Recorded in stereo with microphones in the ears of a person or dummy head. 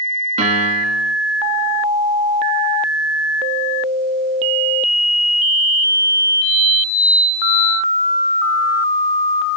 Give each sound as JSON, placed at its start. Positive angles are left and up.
{"t": 0.4, "sound": "a piano", "side_deg": -30, "distance_m": 4.0}